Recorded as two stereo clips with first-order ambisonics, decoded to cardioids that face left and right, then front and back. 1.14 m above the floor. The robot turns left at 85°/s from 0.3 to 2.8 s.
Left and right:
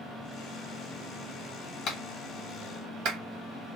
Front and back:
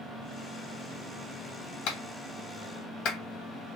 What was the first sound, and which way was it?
A clap, 35° left.